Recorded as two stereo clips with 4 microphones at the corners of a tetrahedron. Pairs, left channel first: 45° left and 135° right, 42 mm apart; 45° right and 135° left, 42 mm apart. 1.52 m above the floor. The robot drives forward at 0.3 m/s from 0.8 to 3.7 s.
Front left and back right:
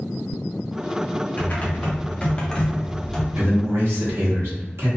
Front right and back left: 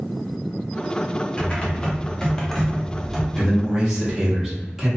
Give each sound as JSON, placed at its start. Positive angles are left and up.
{"t": 1.4, "sound": "typing on a keyboard", "azimuth_deg": 10, "distance_m": 0.8}
{"t": 3.4, "sound": "a man speaking", "azimuth_deg": -145, "distance_m": 1.0}